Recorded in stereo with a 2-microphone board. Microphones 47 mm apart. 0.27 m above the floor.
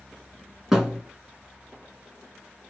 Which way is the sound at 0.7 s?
10° right (ahead or behind).